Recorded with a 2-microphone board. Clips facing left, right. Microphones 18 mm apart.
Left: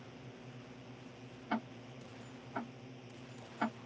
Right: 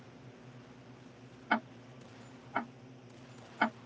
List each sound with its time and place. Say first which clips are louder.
0.0 s a drone: left 2 dB; 45° left (ahead or behind)
1.5 s ticking: right 6 dB; 75° right (ahead or behind)